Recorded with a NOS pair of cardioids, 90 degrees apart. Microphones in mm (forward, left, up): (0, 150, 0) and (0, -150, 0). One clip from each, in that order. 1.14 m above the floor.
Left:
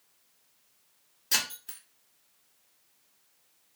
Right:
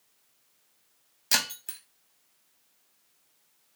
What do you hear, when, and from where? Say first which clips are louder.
1.3 s breaking glass: right 2 dB; 45° right, 1.0 m